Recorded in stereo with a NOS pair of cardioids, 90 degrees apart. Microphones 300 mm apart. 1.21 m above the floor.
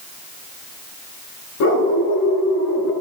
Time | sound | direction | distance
1.6 | a dog barking | 70° left | 7 m